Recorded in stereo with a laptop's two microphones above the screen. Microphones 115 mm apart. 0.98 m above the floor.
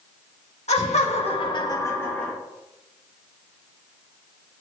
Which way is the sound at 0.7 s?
75° left (ahead or behind).